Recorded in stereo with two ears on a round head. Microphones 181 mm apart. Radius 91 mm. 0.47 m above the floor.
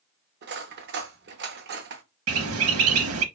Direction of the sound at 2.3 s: 80° right.